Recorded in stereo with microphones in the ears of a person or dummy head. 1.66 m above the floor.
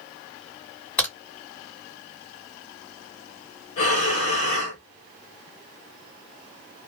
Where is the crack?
10° left (ahead or behind), 1.7 m.